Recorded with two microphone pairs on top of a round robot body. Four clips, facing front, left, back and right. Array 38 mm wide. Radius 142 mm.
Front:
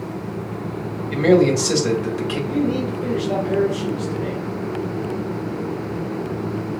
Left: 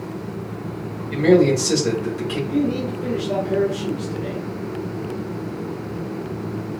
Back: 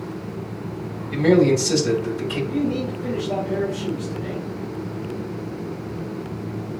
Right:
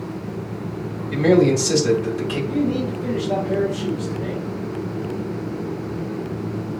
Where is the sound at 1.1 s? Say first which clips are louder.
Left 1 dB, front 1 dB; straight ahead, 2.5 m.